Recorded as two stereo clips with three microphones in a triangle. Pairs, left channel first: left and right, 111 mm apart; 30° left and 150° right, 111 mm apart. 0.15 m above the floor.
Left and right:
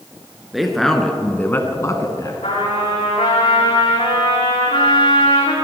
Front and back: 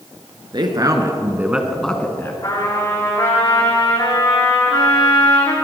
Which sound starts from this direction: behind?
A man speaking, at 0.5 s.